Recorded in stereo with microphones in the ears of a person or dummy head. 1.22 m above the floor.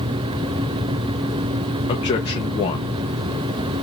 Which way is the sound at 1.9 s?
30° left (ahead or behind).